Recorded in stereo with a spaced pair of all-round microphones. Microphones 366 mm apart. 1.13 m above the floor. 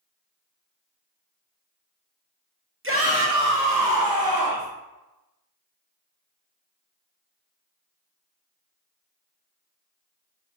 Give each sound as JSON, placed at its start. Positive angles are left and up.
{"t": 2.8, "sound": "a shout", "side_deg": -35, "distance_m": 1.0}